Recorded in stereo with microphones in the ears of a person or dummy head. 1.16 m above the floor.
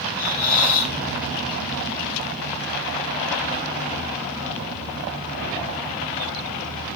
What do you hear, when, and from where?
0.2 s a hiss: 45° left (ahead or behind), 4.5 m